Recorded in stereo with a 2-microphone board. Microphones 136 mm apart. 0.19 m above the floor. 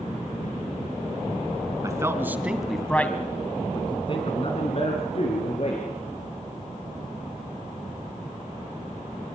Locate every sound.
1.8 s a man speaking: 25° right (ahead or behind), 2.5 m; by 5.8 s 50° left (ahead or behind), 4 m